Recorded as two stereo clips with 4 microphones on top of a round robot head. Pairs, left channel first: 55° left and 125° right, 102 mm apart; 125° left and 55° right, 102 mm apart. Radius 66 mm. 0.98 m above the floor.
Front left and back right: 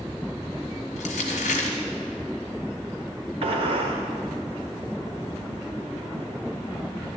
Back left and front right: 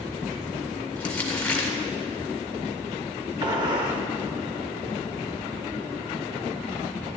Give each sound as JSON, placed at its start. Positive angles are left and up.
{"t": 1.0, "sound": "crumpling", "azimuth_deg": 45, "distance_m": 1.7}
{"t": 3.4, "sound": "a gunshot", "azimuth_deg": -95, "distance_m": 1.5}